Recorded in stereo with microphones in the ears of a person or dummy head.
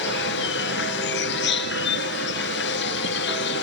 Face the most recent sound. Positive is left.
turn(degrees=60)  # may be behind; listen again after turning